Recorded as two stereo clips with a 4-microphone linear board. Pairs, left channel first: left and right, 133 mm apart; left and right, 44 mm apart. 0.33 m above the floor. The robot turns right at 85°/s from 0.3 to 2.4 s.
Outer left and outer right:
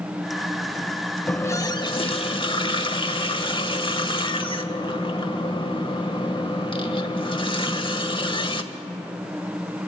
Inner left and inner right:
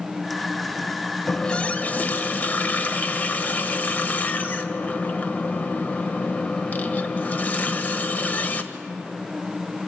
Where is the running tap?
15° left, 1.0 m; by 8.6 s 110° left, 1.0 m.